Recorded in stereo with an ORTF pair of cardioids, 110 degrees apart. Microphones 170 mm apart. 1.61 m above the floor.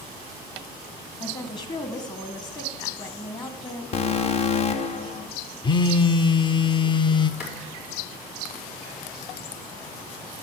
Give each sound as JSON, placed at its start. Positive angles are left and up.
{"t": 1.2, "sound": "a woman speaking", "azimuth_deg": 25, "distance_m": 1.7}
{"t": 3.9, "sound": "an alarm", "azimuth_deg": 40, "distance_m": 0.8}
{"t": 5.6, "sound": "a phone buzzing", "azimuth_deg": 25, "distance_m": 0.5}
{"t": 7.4, "sound": "a clap", "azimuth_deg": 65, "distance_m": 4.5}